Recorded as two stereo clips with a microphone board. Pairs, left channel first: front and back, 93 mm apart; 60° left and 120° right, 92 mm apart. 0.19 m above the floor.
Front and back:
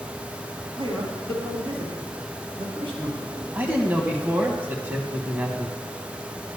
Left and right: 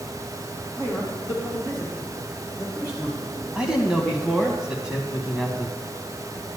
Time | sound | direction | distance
0.8 | a man speaking | 170° right | 3.5 m
3.5 | a man speaking | 175° left | 1.0 m